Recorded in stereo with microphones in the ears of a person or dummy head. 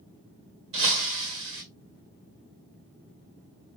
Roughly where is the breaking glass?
Right.